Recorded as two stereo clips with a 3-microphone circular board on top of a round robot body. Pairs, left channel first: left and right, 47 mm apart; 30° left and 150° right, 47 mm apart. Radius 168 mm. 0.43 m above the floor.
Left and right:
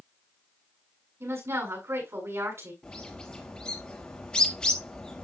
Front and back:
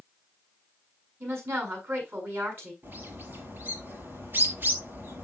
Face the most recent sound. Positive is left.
turn(degrees=160)